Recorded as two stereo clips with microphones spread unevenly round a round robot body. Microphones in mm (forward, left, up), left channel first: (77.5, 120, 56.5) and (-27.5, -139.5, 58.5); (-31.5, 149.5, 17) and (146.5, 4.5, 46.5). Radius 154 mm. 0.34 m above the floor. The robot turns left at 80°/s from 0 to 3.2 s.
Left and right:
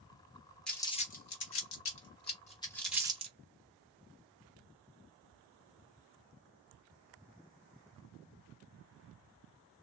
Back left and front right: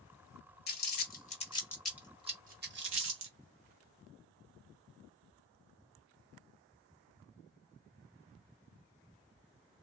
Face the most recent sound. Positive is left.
turn(degrees=-50)